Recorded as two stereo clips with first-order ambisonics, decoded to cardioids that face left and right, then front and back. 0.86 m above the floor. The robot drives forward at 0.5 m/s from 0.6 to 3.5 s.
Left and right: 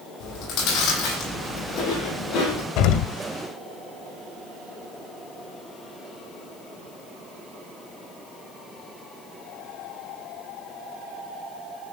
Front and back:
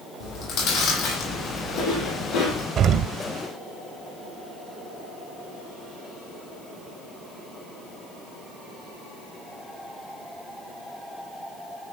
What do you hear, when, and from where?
0.2 s chewing: 35° left, 10 m; by 2.7 s 40° left, 9 m
2.8 s an explosion: 120° left, 1.9 m; by 3.1 s 125° left, 2.0 m